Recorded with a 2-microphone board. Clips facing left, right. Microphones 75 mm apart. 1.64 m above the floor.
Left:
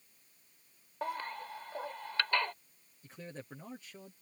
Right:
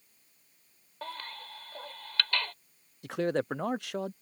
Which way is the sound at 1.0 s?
15° left (ahead or behind).